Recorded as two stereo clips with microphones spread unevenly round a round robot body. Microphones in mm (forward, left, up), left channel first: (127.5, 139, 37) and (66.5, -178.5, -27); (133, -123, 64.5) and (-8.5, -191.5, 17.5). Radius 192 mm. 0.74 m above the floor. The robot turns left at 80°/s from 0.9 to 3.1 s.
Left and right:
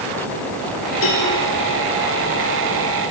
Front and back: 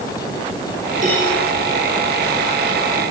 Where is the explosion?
No explosion in this recording.